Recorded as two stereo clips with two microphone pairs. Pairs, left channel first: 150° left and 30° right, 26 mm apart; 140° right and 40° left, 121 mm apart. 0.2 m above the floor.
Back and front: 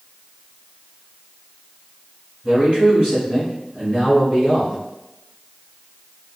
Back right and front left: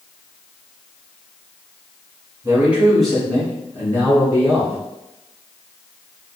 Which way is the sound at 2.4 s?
5° right.